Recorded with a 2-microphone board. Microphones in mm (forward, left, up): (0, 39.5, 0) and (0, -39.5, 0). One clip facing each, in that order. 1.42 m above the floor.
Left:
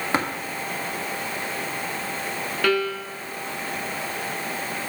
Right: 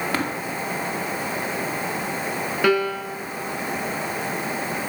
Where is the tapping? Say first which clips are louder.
Left 3 dB; 25° left (ahead or behind), 2.5 m.